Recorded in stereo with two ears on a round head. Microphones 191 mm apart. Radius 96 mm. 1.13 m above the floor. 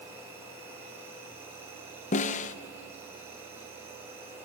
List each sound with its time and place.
0.0 s an insect: 10° right (ahead or behind), 6.5 m
2.1 s a snare drum: 35° left (ahead or behind), 0.7 m